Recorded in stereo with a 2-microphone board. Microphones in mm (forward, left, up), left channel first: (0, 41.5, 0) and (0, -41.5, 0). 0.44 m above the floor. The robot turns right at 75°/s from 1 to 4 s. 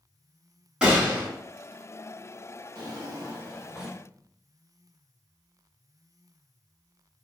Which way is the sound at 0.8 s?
10° right (ahead or behind).